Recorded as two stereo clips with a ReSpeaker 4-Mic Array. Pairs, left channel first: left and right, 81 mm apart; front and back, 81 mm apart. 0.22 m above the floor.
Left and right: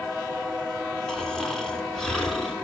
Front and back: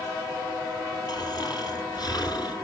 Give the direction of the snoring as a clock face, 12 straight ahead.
12 o'clock.